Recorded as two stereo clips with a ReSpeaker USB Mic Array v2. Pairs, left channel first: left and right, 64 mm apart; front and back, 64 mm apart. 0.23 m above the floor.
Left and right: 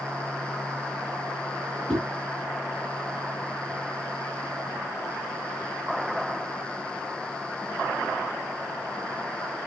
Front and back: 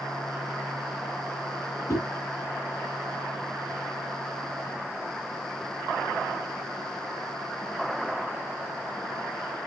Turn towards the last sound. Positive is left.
turn(degrees=15)